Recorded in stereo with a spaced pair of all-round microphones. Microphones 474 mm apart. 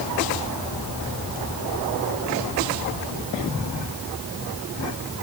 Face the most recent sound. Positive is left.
No sound to turn to.